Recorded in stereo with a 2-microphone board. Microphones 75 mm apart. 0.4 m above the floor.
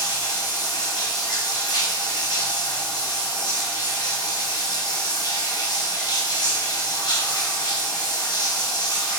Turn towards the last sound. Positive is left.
turn(degrees=70)  # may be behind; listen again after turning